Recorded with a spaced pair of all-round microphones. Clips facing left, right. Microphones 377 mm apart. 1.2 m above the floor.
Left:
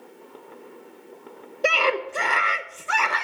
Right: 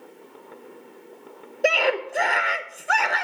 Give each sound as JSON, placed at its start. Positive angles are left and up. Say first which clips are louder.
{"t": 1.6, "sound": "a scream", "louder": "right 2 dB", "side_deg": 10, "distance_m": 1.0}